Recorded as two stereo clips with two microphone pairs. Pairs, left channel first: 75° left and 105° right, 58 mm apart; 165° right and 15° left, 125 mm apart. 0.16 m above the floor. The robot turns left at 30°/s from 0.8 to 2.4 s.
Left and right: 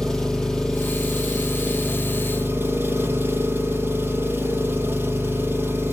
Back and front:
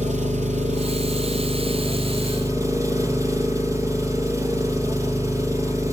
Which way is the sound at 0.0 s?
Straight ahead.